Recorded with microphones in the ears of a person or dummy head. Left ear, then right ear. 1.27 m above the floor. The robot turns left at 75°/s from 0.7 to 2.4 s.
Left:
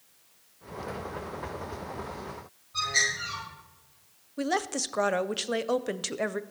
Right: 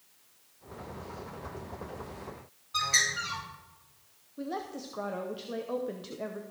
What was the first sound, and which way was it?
A bird, 75° right (ahead or behind).